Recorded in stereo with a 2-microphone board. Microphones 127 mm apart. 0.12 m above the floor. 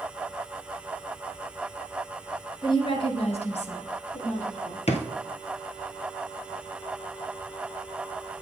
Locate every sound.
2.6 s a woman speaking: 40° left (ahead or behind), 1.4 m; by 4.8 s 65° left (ahead or behind), 3 m
4.9 s a drawer: 60° left (ahead or behind), 1.0 m